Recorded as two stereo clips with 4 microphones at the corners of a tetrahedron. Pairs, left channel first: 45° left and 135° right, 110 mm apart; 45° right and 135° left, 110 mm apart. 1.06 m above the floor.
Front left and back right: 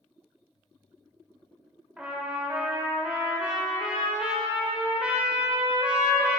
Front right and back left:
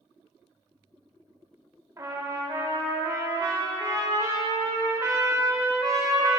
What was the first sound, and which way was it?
A trumpet, 155° left.